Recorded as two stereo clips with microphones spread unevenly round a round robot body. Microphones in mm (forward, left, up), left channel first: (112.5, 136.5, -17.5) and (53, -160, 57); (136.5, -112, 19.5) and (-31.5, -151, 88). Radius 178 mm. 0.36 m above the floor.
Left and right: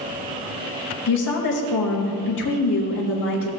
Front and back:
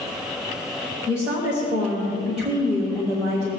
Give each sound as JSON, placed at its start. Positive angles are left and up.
{"t": 1.1, "sound": "a woman speaking", "azimuth_deg": 90, "distance_m": 1.2}